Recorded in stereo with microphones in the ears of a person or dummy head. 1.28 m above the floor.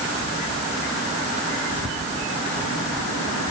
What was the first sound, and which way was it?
Only background noise.